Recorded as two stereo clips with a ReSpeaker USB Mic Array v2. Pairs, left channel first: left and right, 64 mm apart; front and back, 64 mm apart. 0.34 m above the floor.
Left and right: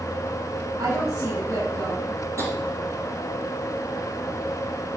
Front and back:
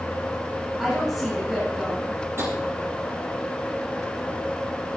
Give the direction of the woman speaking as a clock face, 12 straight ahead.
3 o'clock.